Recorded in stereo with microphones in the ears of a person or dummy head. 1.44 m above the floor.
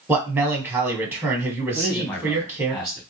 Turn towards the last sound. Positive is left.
turn(degrees=20)  # may be behind; listen again after turning